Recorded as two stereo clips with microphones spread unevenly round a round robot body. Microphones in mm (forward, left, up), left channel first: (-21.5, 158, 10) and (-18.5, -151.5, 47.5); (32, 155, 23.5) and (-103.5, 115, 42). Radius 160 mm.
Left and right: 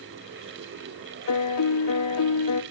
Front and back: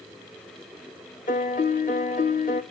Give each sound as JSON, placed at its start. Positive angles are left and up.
{"t": 1.3, "sound": "a piano", "azimuth_deg": 45, "distance_m": 1.1}